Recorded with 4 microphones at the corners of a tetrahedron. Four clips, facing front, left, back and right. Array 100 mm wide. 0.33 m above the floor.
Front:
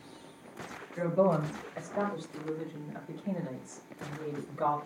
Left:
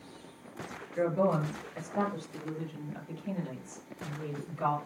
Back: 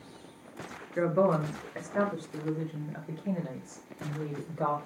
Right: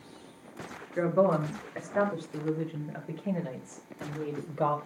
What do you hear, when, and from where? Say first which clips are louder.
1.0 s a woman speaking: right 3 dB, back 1 dB; 140° right, 6 m; by 4.8 s 115° right, 10.5 m